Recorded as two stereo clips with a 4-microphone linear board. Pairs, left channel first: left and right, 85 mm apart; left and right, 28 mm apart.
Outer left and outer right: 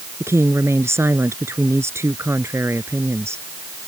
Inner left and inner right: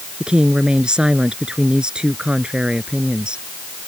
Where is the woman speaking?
30° right (ahead or behind).